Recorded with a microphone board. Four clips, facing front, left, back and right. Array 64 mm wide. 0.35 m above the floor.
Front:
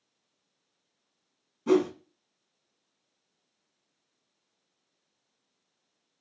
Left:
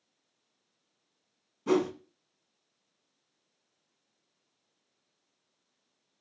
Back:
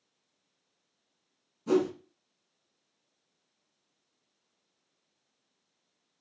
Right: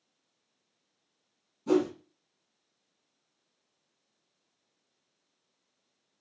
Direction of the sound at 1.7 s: 45° left.